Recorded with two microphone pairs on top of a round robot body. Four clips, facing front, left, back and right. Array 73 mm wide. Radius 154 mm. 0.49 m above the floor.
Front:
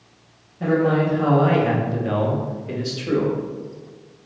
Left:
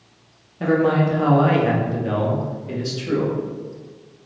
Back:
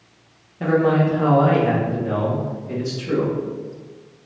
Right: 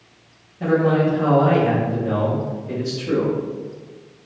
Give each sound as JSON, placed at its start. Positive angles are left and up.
{"t": 0.6, "sound": "a man speaking", "azimuth_deg": 120, "distance_m": 0.9}